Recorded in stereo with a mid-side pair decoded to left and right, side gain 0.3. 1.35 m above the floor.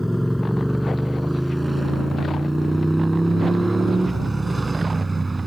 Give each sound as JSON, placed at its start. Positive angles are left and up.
{"t": 0.0, "sound": "a motorcycle", "azimuth_deg": 0}